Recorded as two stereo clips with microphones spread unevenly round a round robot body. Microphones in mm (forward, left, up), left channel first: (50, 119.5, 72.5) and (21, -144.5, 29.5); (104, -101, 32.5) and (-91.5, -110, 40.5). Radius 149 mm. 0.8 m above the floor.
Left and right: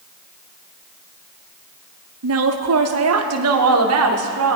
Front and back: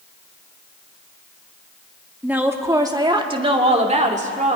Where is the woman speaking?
95° right, 1.8 m; by 4.6 s 125° right, 3 m.